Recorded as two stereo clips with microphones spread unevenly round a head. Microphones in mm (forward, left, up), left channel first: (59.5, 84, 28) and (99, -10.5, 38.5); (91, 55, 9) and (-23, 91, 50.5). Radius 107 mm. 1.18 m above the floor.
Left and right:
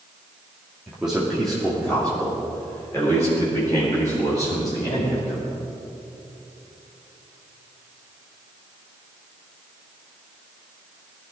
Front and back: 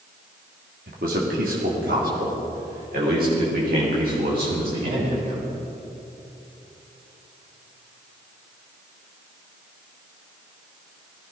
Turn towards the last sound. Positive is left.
turn(degrees=-175)